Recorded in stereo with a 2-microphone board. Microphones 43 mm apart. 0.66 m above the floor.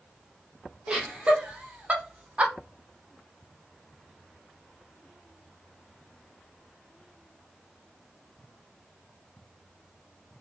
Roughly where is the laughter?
Right.